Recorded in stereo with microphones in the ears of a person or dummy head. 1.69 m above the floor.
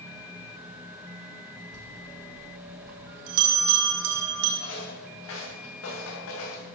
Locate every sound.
1.7 s a bell: 75° right (ahead or behind), 3 m
4.6 s footsteps: 75° left (ahead or behind), 9 m; by 6.6 s 80° left, 9 m